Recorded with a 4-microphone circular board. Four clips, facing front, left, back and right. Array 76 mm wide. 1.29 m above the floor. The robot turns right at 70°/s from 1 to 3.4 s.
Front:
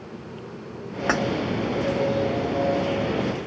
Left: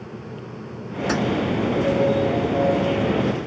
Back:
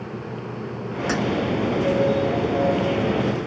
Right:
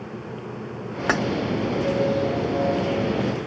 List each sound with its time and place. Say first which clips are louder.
1.1 s keys jangling: right 1 dB, front 2 dB; 55° right, 0.7 m; by 1.2 s 50° right, 0.7 m